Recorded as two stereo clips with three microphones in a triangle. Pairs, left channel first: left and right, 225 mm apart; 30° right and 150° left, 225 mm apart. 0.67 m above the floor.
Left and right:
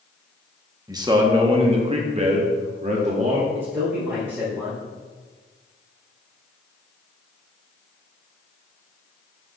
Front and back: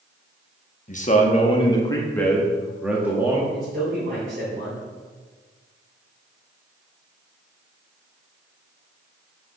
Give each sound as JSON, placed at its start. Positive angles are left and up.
{"t": 0.9, "sound": "a man speaking", "azimuth_deg": -30, "distance_m": 1.0}
{"t": 3.5, "sound": "a man speaking", "azimuth_deg": -170, "distance_m": 3.0}